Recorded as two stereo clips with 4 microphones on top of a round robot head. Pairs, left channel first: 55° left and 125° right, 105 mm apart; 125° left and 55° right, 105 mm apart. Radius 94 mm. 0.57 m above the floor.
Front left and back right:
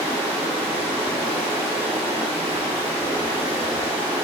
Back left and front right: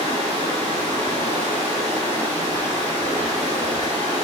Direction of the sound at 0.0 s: 90° right.